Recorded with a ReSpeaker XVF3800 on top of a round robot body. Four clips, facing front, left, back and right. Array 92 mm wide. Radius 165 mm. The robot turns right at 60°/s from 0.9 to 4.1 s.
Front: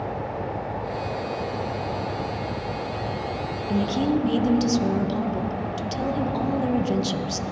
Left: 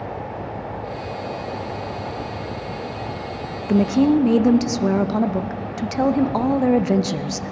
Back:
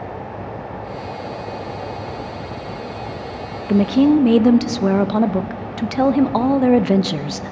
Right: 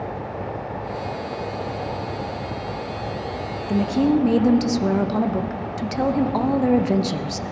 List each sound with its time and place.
3.7 s a woman speaking: 145° left, 0.7 m; by 7.5 s 170° left, 0.7 m